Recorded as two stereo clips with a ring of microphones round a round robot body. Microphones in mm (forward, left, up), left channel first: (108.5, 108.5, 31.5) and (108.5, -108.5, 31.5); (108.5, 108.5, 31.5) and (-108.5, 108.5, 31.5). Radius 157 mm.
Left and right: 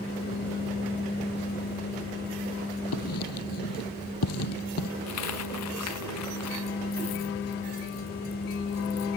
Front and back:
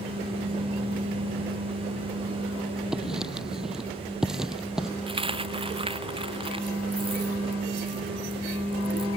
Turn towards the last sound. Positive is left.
turn(degrees=115)